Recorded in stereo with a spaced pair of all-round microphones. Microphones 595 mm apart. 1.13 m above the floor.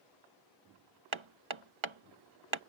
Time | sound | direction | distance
1.1 | hammering | 50° right (ahead or behind) | ?